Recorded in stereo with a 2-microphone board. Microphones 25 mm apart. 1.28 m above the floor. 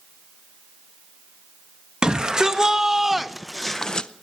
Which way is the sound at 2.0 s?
35° right (ahead or behind).